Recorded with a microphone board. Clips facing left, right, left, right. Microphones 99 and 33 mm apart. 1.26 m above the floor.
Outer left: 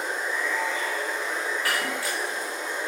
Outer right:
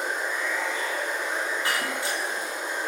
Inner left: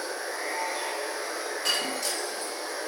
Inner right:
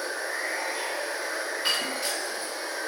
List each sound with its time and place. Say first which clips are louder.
0.0 s running water: even, inner right 2 dB; 55° right (ahead or behind), 1.8 m
1.6 s breaking glass: even, even; 25° right (ahead or behind), 0.6 m